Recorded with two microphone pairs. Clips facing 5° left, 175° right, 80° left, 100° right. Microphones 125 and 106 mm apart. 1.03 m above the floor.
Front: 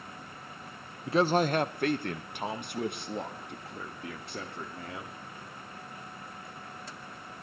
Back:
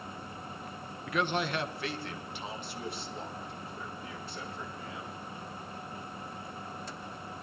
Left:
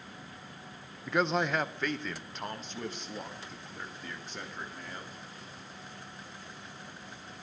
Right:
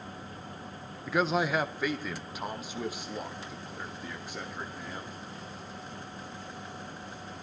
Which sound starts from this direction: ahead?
A man speaking, at 1.1 s.